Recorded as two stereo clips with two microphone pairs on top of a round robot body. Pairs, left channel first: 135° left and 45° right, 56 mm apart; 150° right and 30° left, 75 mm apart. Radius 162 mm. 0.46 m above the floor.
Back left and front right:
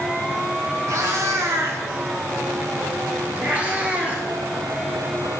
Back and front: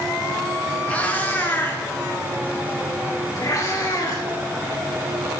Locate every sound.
0.9 s a cat meowing: 75° right, 2.5 m; by 5.4 s 115° right, 5 m